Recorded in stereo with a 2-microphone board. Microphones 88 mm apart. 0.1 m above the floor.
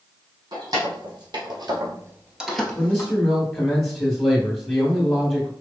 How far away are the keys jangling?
About 2.5 m.